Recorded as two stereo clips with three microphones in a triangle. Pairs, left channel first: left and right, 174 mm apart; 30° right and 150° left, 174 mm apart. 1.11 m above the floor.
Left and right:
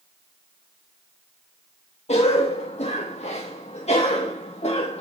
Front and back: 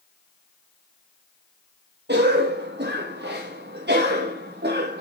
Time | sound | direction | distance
2.1 | a cough | 140° left | 1.3 m